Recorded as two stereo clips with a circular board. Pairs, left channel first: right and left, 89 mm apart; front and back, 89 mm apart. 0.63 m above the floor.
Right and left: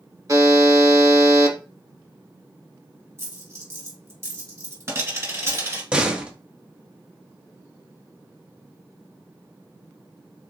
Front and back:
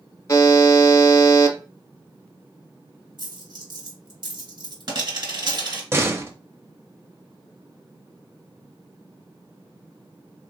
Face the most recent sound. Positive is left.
turn(degrees=155)